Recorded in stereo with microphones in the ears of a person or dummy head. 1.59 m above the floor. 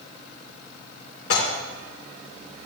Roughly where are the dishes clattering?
Left.